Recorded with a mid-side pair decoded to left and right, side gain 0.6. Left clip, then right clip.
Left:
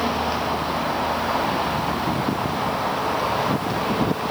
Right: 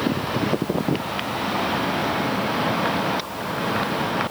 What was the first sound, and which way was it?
Only background noise.